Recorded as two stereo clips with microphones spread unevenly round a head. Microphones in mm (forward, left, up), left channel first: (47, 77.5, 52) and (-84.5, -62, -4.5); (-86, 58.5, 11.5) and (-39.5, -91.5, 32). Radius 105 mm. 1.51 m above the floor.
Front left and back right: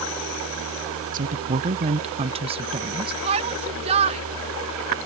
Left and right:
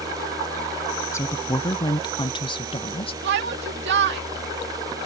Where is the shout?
70° right.